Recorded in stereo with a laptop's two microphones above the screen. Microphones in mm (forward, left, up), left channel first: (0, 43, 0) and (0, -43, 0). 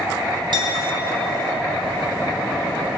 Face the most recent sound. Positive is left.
turn(degrees=-65)  # may be behind; listen again after turning